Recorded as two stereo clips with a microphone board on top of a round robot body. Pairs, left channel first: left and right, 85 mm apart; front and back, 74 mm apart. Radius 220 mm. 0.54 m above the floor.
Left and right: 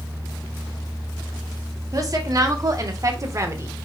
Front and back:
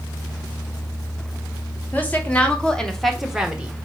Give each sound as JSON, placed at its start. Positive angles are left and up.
{"t": 1.9, "sound": "a woman speaking", "azimuth_deg": -60, "distance_m": 1.5}